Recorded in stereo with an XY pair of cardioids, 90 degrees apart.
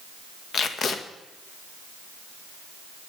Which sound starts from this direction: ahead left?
Tape being pulled, at 0.5 s.